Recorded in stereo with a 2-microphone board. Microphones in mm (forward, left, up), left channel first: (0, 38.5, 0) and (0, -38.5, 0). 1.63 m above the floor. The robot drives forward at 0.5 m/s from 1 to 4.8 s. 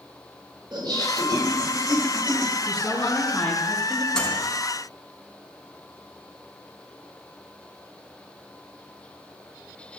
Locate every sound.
0.7 s laughter: 75° right (ahead or behind), 5.5 m; by 2.5 s 65° right (ahead or behind), 5.5 m
2.6 s a woman speaking: 15° left (ahead or behind), 4.5 m
4.1 s a microwave: 10° left (ahead or behind), 4 m